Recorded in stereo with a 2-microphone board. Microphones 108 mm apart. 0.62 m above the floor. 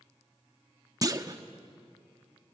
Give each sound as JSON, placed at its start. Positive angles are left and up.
{"t": 1.0, "sound": "a clunk", "side_deg": -35, "distance_m": 0.8}